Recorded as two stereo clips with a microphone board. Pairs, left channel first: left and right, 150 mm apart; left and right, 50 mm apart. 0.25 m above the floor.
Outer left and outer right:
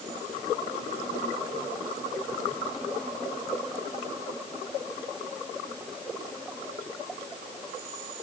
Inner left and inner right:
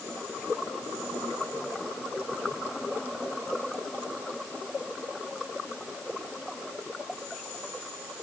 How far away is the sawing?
I don't hear sawing.